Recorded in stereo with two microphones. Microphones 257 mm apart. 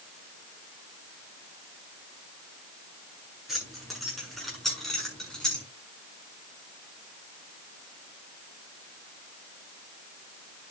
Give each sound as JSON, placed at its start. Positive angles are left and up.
{"t": 3.5, "sound": "keys jangling", "side_deg": 0, "distance_m": 8.5}